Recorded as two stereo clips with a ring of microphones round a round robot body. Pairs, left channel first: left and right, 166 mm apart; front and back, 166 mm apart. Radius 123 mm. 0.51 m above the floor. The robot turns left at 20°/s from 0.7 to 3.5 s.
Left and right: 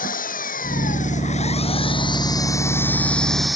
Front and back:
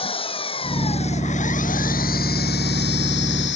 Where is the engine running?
55° left; by 3.5 s straight ahead.